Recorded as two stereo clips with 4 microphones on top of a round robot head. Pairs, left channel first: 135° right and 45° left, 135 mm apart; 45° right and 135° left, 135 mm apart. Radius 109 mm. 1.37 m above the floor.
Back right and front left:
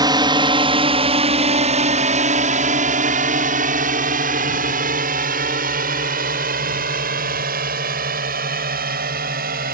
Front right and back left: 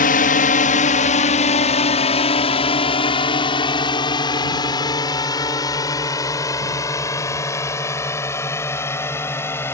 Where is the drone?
20° right; by 9.7 s 30° left.